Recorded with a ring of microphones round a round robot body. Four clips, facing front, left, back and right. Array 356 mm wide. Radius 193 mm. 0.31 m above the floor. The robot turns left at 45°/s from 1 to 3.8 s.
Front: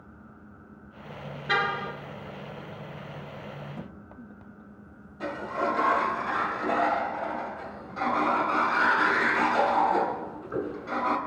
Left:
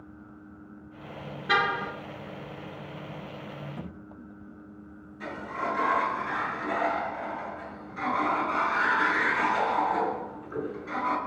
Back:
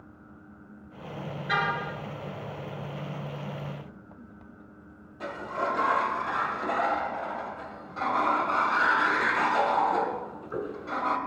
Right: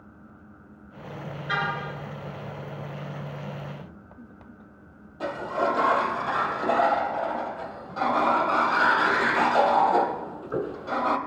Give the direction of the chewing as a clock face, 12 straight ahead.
No chewing in this recording.